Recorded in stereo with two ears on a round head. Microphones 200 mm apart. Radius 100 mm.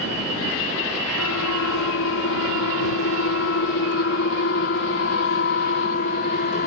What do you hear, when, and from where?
1.2 s a siren: 70° left (ahead or behind); by 6.7 s 40° left (ahead or behind)